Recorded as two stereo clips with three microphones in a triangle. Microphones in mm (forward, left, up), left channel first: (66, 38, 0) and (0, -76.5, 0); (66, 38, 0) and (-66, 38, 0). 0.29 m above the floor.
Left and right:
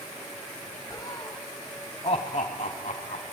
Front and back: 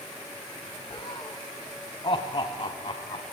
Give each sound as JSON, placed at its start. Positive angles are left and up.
{"t": 0.9, "sound": "laughter", "azimuth_deg": 10, "distance_m": 1.6}